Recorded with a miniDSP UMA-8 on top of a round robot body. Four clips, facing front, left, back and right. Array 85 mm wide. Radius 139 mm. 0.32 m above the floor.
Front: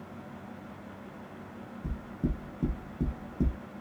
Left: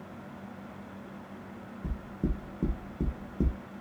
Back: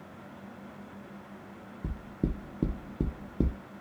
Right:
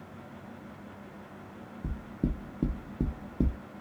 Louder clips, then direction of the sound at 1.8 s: Right 1 dB, back 1 dB; 160° right.